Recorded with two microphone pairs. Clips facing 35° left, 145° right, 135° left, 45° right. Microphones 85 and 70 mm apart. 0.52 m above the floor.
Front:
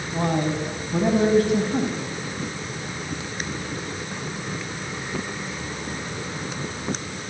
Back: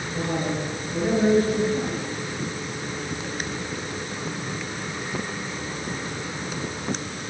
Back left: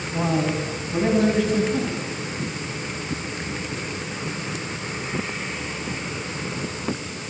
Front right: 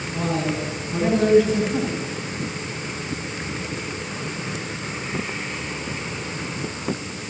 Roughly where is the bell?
I don't hear a bell.